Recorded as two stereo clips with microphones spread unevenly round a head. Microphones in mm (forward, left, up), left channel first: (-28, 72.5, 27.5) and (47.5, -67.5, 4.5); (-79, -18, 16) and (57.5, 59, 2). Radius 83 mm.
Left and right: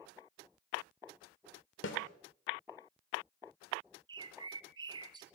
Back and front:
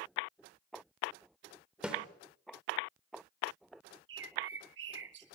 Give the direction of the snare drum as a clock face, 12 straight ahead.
8 o'clock.